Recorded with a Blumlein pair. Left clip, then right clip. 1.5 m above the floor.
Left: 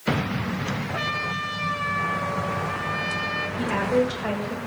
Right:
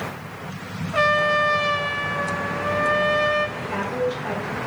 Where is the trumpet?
25° right, 0.6 m.